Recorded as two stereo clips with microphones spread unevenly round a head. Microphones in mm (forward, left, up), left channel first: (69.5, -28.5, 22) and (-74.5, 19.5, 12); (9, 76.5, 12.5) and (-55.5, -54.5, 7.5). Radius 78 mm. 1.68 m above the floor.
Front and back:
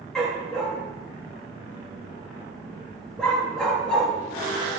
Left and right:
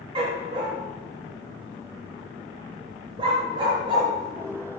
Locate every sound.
0.1 s a dog barking: 95° right, 1.2 m